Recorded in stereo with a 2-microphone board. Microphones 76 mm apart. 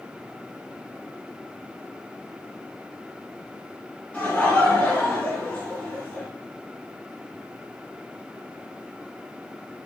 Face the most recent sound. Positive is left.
turn(degrees=15)  # may be behind; listen again after turning